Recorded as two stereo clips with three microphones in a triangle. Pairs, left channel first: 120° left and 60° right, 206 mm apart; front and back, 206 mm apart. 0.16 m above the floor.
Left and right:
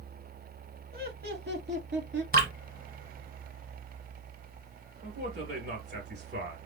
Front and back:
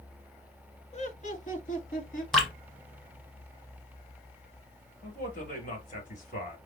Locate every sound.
0.9 s laughter: 45° right, 1.5 m
2.3 s dripping: 90° right, 1.6 m
5.0 s a man speaking: 45° right, 3 m